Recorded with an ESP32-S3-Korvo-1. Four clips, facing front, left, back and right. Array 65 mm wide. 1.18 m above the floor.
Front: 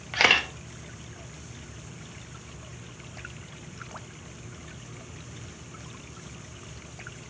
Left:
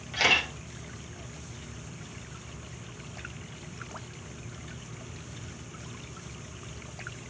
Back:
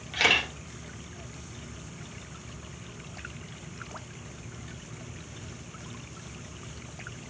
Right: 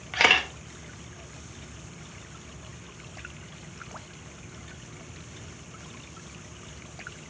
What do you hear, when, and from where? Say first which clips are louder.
0.1 s a camera shutter: right 4 dB, front 3 dB; 40° right, 0.7 m